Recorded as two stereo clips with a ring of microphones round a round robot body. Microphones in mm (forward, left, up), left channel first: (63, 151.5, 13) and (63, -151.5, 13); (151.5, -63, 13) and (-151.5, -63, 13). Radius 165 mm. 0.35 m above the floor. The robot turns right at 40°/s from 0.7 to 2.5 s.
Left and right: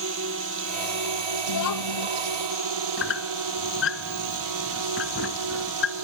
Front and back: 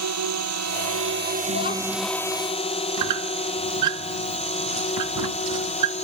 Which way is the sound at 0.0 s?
145° right.